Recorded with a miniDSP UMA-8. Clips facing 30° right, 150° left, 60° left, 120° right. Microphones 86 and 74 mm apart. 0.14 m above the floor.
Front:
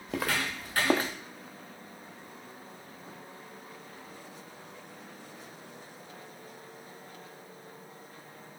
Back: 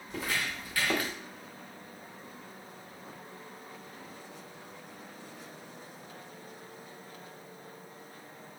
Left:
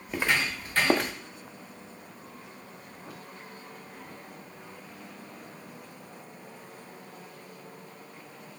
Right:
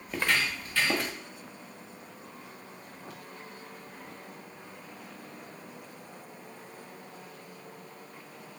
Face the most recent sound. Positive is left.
turn(degrees=35)